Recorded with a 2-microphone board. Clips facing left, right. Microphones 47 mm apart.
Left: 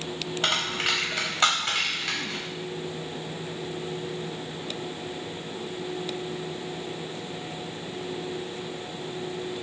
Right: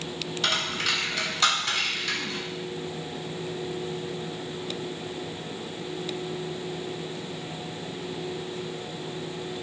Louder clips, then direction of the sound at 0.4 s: Left 1 dB; 35° left (ahead or behind).